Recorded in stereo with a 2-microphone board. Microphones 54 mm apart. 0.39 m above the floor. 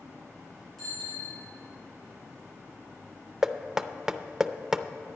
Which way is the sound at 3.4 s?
10° right (ahead or behind).